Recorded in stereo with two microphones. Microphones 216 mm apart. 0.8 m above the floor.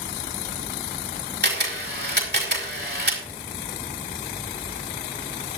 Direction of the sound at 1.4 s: 50° right (ahead or behind).